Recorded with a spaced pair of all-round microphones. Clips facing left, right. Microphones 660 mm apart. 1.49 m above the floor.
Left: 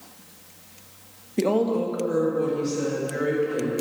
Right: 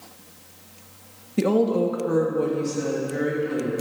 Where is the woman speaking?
35° right (ahead or behind), 1.1 m; by 3.7 s 60° right (ahead or behind), 3 m.